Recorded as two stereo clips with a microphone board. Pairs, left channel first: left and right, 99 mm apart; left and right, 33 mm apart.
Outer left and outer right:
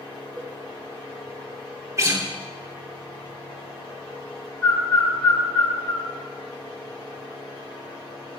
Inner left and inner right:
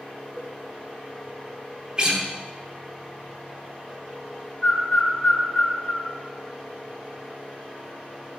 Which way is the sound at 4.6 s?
15° left (ahead or behind).